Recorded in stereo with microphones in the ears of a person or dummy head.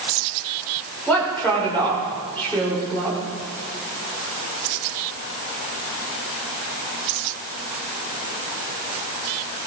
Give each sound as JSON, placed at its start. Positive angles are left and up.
{"t": 1.1, "sound": "a woman speaking", "side_deg": 10, "distance_m": 7.5}